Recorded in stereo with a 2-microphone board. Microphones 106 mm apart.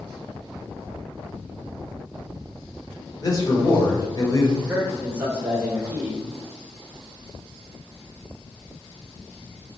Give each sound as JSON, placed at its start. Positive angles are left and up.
{"t": 3.2, "sound": "a man speaking", "side_deg": 35, "distance_m": 1.1}
{"t": 4.6, "sound": "a man speaking", "side_deg": -20, "distance_m": 1.6}